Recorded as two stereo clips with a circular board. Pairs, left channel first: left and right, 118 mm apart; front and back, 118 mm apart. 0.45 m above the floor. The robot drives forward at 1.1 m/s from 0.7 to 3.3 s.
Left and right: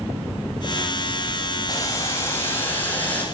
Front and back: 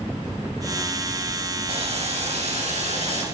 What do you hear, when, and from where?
1.7 s boiling: 150° left, 1.3 m; by 3.2 s 165° left, 3 m